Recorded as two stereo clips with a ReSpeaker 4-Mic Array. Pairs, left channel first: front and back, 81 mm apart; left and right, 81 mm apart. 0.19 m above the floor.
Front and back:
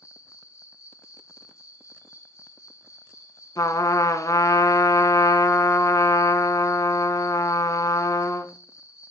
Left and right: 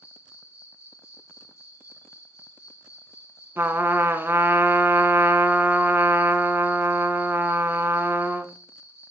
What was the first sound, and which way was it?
An insect, 45° left.